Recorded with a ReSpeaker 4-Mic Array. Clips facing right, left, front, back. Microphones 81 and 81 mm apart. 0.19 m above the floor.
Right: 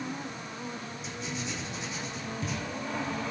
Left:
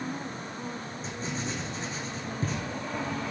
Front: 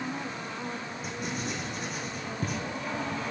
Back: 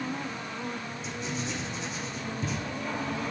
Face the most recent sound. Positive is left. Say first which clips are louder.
# left 3 dB, even
turn(degrees=40)